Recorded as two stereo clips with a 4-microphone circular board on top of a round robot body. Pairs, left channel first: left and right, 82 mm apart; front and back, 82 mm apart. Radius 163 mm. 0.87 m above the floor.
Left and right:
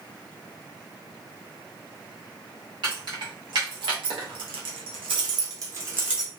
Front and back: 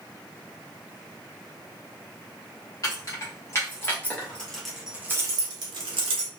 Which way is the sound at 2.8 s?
55° right.